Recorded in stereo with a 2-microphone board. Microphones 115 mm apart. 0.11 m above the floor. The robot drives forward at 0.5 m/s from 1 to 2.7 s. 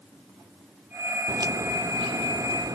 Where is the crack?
30° right (ahead or behind); by 2.8 s 35° right (ahead or behind).